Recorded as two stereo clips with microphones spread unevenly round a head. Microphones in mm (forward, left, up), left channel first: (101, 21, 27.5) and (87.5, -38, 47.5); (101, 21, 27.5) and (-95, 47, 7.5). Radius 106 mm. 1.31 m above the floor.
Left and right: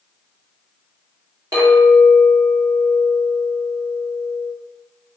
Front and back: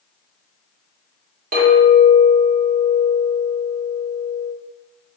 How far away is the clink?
About 0.6 m.